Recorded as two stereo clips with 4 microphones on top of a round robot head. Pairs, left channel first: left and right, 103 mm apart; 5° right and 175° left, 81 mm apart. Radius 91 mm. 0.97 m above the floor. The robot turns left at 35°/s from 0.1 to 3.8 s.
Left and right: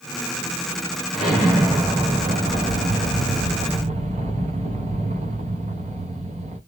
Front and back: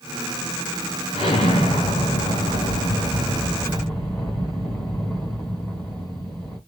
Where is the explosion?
5° left, 2 m; by 6.6 s 85° right, 2 m.